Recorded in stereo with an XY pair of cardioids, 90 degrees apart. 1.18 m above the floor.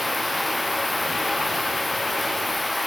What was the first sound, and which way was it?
Running water, 10° left.